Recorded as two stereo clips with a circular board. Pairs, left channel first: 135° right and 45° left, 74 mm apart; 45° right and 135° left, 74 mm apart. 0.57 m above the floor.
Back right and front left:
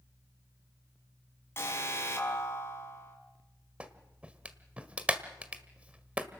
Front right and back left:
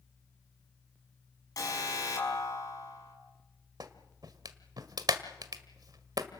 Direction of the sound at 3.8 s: 115° left.